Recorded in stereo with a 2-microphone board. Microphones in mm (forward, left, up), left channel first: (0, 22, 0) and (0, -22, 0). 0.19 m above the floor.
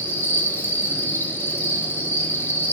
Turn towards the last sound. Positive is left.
turn(degrees=55)  # may be behind; listen again after turning